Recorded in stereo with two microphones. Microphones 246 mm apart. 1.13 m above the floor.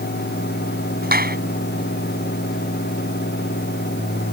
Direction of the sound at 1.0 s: 40° right (ahead or behind).